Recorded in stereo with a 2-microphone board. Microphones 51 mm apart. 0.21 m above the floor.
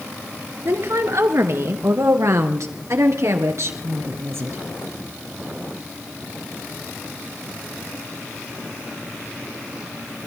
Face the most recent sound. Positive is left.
turn(degrees=-55)  # may be behind; listen again after turning